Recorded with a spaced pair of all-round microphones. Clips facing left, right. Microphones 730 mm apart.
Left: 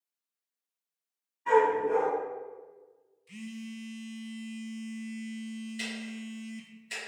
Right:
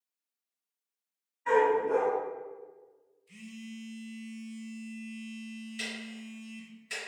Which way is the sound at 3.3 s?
85° left.